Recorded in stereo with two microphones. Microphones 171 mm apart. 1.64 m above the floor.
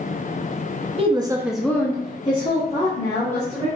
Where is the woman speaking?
35° right (ahead or behind), 0.6 m; by 3.7 s 40° left (ahead or behind), 1.8 m.